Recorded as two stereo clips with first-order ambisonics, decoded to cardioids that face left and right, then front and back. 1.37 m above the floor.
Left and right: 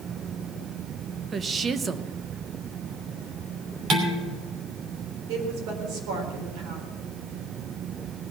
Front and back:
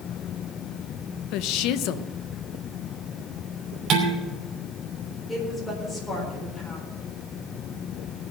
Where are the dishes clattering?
135° right, 3 m.